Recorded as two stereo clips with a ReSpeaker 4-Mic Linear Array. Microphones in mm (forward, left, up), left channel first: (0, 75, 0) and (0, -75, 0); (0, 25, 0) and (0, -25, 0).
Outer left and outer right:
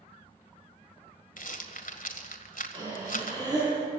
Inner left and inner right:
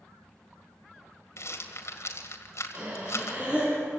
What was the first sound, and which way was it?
A rattle, 70° left (ahead or behind).